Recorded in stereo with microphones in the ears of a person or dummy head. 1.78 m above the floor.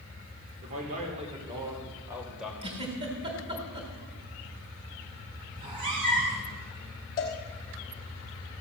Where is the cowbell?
20° left (ahead or behind), 1.4 m.